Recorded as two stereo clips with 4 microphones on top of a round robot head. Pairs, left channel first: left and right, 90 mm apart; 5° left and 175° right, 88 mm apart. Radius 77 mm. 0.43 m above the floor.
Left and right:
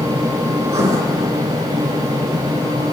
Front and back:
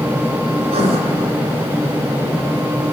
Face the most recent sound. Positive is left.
turn(degrees=-155)